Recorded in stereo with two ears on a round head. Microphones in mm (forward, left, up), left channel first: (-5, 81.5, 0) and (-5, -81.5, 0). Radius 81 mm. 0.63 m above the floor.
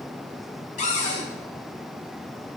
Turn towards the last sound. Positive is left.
turn(degrees=45)  # may be behind; listen again after turning